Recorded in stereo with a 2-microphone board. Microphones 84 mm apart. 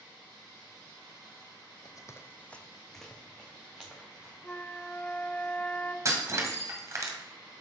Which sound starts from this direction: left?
Running footsteps, at 1.9 s.